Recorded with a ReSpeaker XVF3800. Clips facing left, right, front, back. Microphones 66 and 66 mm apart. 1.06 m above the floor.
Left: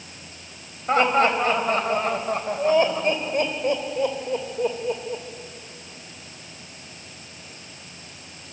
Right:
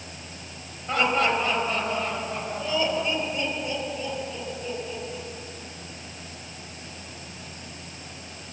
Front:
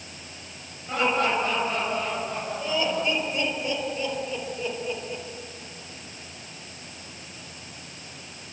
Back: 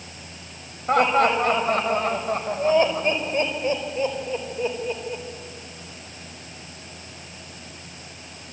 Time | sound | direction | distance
0.9 | laughter | 145° left | 5.5 m